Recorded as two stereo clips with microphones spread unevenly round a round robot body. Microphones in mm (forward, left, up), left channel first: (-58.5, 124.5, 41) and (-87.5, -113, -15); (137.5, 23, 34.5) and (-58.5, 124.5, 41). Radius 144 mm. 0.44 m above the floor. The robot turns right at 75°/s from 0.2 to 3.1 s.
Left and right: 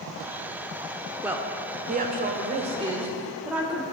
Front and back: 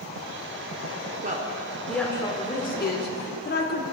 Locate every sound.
1.2 s a woman speaking: 170° right, 0.9 m; by 3.8 s 30° right, 0.9 m